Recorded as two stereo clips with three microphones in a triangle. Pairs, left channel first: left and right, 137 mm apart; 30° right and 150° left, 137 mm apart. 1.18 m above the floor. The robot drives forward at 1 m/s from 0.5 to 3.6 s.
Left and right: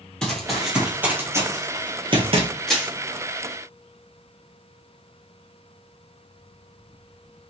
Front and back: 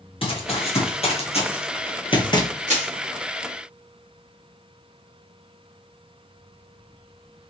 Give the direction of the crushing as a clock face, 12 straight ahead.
6 o'clock.